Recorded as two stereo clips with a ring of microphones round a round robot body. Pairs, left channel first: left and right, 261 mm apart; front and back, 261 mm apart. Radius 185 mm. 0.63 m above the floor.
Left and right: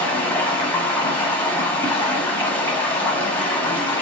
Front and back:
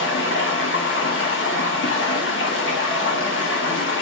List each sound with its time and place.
0.0 s running water: 10° left, 1.2 m